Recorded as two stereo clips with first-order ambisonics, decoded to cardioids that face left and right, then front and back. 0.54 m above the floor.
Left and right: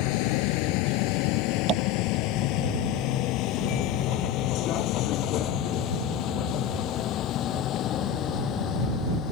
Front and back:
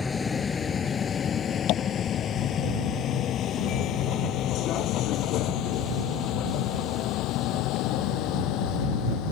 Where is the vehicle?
80° left; by 9.3 s 35° left.